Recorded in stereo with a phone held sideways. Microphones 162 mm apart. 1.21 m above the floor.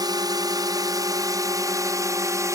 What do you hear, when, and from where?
0.0 s a drone: 25° right (ahead or behind); by 2.6 s 20° right (ahead or behind)